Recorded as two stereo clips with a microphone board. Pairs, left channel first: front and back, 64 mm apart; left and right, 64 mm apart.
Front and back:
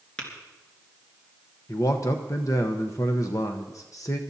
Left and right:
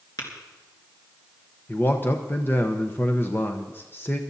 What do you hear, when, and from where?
0.2 s tapping: 75° left, 3 m
1.7 s a man speaking: 35° left, 0.8 m